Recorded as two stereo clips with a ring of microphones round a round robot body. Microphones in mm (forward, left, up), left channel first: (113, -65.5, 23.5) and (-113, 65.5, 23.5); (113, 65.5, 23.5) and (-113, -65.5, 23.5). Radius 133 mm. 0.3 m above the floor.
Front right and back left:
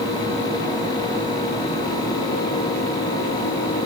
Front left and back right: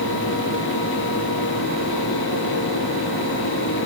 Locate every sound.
Only background noise.